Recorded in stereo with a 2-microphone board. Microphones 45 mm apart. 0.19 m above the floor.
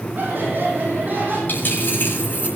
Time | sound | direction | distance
0.1 | laughter | 50° right (ahead or behind) | 7.5 m
1.5 | a dropped coin | 45° left (ahead or behind) | 7.5 m